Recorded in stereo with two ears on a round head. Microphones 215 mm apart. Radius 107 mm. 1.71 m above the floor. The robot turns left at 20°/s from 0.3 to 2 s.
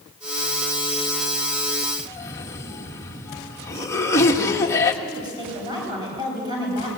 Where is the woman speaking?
20° right (ahead or behind), 8.5 m.